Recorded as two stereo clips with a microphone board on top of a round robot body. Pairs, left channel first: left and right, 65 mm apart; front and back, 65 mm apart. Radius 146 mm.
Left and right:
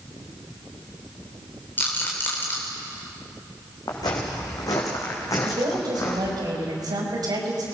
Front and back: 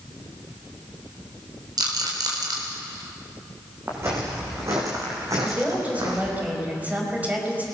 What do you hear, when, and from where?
1.8 s a rattle: 155° left, 4 m
3.9 s footsteps: 125° left, 5 m; by 6.4 s 140° left, 4.5 m
5.4 s a woman speaking: 115° right, 5 m